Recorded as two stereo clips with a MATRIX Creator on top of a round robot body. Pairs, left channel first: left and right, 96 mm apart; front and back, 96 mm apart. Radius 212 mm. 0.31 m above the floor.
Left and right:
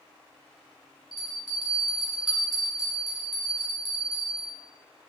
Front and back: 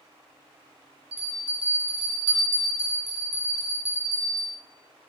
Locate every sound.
1.1 s a bell: straight behind, 3 m